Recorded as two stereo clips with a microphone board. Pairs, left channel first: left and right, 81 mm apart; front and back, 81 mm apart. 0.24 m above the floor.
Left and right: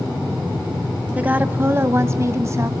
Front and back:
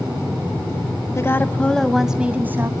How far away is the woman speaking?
About 1.3 m.